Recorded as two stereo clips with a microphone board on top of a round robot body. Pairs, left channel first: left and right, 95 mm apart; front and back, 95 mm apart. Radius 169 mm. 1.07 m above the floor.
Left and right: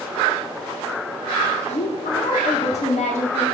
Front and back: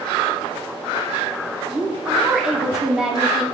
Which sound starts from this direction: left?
A woman speaking, at 1.7 s.